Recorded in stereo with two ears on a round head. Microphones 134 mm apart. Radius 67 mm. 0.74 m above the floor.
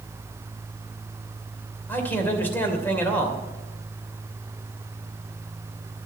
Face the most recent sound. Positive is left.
turn(degrees=15)  # may be behind; listen again after turning